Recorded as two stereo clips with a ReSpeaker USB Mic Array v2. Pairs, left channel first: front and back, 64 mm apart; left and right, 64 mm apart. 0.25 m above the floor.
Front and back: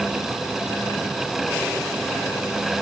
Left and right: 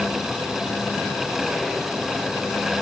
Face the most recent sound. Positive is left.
No sound to turn to.